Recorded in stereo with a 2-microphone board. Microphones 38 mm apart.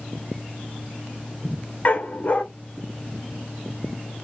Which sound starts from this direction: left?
A dog barking, at 1.9 s.